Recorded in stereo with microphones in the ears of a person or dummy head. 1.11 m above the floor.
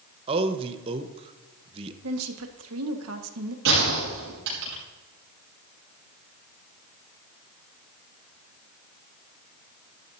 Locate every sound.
0.3 s a man speaking: 25° right (ahead or behind), 0.9 m
2.0 s a woman speaking: 75° right (ahead or behind), 1.6 m
3.6 s a gunshot: 70° right (ahead or behind), 5.5 m